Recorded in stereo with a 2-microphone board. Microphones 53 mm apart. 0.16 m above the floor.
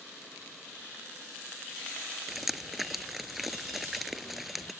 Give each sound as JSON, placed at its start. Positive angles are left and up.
{"t": 2.3, "sound": "dripping", "side_deg": -5}